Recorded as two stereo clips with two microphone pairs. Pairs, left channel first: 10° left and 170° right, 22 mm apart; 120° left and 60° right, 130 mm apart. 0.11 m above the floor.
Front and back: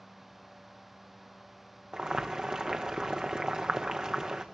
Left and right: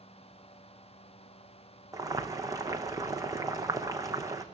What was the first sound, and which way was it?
Boiling, 125° right.